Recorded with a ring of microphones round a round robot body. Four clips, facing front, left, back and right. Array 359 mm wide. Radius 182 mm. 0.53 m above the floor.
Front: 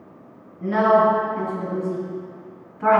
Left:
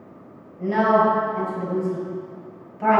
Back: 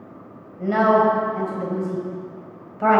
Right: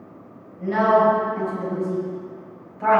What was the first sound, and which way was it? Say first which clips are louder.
A woman speaking: right 1 dB, even; 175° left.